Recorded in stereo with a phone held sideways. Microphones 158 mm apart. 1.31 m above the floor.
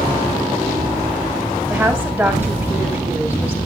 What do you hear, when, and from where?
1.7 s a woman speaking: 10° right (ahead or behind), 2.5 m